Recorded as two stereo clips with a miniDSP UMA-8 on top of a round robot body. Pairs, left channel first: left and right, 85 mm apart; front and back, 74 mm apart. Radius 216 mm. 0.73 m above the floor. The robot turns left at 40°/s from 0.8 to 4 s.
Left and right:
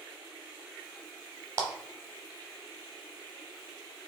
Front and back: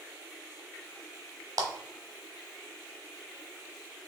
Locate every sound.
1.6 s a clap: 145° right, 1.0 m; by 1.7 s 150° right, 1.0 m